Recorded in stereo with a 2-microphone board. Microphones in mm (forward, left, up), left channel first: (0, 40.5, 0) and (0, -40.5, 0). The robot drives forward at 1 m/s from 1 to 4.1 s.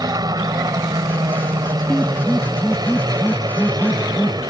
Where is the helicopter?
50° right (ahead or behind); by 4.5 s 55° right (ahead or behind).